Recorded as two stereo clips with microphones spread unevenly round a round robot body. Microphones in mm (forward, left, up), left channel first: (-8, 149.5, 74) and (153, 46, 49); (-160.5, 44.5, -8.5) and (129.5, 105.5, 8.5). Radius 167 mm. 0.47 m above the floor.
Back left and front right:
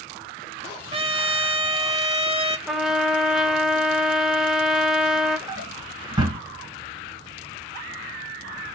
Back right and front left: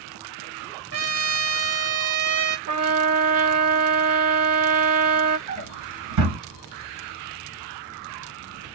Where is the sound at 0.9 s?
25° left, 1.6 m.